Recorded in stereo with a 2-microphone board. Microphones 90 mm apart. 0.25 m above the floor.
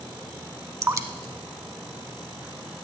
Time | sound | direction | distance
0.8 | dripping | 35° right (ahead or behind) | 0.7 m